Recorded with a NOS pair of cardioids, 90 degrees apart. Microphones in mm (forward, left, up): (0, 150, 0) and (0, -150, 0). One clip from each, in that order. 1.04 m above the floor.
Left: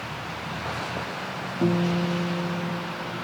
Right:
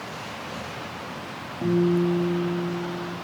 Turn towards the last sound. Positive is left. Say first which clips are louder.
# right 4 dB
turn(degrees=40)